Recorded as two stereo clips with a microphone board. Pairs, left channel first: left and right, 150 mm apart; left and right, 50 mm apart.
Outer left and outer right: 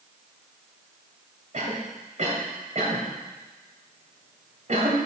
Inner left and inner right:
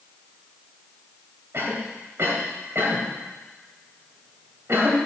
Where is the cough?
55° right (ahead or behind), 2.0 m.